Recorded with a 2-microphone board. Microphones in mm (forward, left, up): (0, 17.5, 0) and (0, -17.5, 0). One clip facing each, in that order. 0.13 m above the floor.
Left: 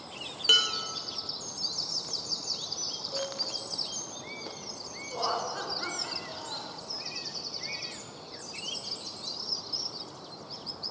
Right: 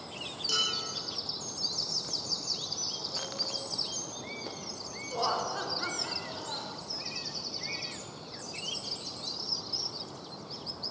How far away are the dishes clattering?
About 2 m.